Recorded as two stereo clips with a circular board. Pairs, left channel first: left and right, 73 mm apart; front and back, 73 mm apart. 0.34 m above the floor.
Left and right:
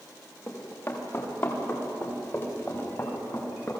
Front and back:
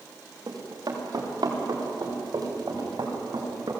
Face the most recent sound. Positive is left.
turn(degrees=150)